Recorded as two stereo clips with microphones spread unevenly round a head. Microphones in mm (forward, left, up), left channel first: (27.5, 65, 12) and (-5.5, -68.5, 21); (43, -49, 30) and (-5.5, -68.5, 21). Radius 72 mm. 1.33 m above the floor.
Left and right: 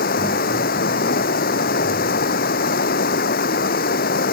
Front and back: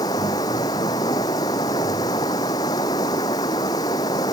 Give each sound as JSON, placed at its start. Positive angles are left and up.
{"t": 0.0, "sound": "running water", "azimuth_deg": 55}